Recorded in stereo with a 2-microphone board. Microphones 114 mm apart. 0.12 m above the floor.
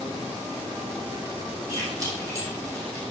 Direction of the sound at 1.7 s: 25° right (ahead or behind).